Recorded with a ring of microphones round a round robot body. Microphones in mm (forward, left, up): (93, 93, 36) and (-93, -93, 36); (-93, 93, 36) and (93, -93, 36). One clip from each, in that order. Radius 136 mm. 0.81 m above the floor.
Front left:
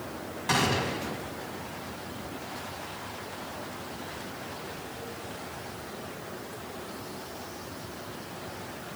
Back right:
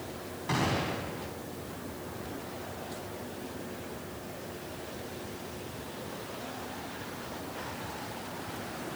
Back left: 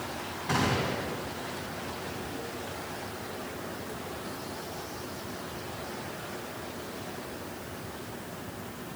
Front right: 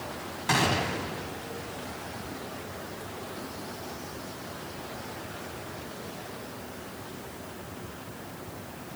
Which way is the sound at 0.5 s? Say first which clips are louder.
Front left 4 dB, front right 3 dB; 10° right.